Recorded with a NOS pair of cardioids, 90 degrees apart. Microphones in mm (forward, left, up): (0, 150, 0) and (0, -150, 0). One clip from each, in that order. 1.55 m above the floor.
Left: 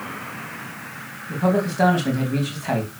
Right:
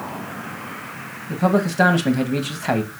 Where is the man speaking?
35° right, 2.5 m.